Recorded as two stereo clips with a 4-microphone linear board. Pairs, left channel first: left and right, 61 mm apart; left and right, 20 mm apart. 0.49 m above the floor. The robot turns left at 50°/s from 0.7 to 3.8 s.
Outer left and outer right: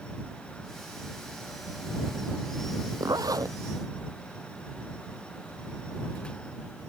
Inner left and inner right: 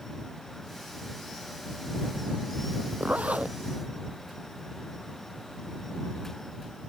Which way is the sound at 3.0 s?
85° right.